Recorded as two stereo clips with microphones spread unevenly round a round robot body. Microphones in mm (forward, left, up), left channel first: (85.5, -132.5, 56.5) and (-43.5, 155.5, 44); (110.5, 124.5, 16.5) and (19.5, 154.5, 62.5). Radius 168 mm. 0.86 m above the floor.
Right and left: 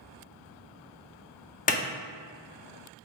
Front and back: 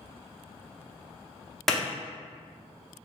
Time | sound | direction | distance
1.7 | a clap | 20° right | 0.6 m